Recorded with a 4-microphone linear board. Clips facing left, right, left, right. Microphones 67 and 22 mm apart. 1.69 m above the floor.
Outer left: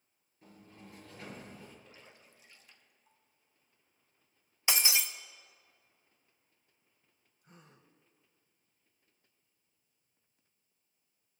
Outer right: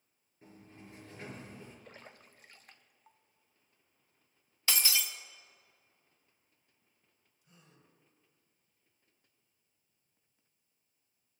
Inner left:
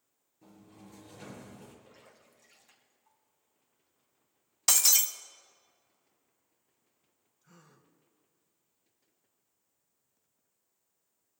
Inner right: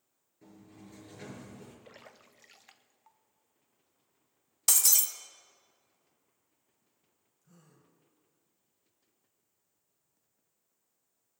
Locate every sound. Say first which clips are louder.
0.4 s a sliding door: outer right 1 dB, inner right 1 dB; 25° right (ahead or behind), 5.5 m
1.9 s a splash: outer right 4 dB, inner right 4 dB; 50° right (ahead or behind), 0.8 m
4.7 s breaking glass: outer left 2 dB, inner left 2 dB; 20° left (ahead or behind), 0.8 m
7.4 s a gasp: outer left 4 dB, inner left 2 dB; 45° left (ahead or behind), 2 m